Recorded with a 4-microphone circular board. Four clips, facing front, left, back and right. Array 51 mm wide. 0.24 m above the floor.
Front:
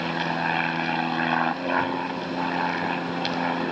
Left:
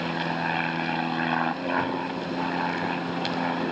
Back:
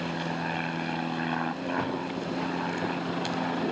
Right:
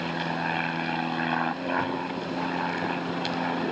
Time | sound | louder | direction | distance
0.0 | an aircraft | left 1 dB, front 6 dB | 10° left | ?